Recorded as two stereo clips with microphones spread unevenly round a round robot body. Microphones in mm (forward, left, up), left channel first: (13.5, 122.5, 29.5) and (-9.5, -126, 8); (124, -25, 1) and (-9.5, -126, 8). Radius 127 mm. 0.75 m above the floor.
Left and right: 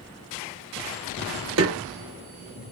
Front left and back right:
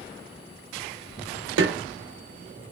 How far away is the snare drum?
About 0.8 m.